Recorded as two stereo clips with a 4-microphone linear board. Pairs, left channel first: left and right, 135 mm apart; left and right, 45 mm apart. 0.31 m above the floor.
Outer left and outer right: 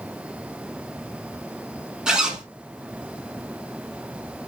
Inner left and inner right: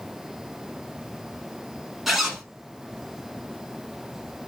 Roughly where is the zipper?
Centre.